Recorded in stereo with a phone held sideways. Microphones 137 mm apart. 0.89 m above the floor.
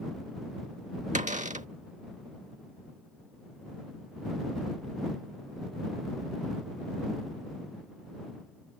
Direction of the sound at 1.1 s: 60° right (ahead or behind).